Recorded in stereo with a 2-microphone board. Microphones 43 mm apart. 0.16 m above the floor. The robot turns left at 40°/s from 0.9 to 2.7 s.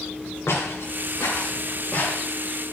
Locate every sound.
0.5 s footsteps: 85° left, 3.5 m; by 2.3 s 25° left (ahead or behind), 5 m